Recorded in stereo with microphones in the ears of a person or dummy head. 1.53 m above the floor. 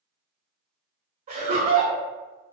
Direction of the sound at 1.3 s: 35° right (ahead or behind).